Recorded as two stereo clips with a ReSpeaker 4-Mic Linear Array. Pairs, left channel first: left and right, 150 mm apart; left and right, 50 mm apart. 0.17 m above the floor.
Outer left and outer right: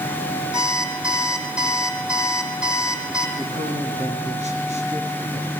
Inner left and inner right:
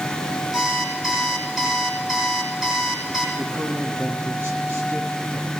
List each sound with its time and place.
0.5 s an alarm clock: 5° right (ahead or behind), 4.5 m
3.4 s a man speaking: 50° right (ahead or behind), 4.5 m